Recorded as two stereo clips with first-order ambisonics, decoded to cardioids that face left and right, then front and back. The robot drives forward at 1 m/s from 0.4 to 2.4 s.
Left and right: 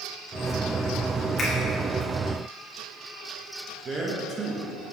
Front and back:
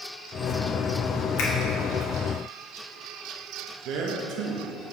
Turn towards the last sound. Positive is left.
turn(degrees=-155)